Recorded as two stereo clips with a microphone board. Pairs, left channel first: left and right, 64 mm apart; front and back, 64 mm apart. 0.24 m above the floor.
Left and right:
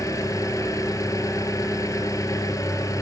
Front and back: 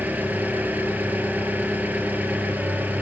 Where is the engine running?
115° left, 2.5 m.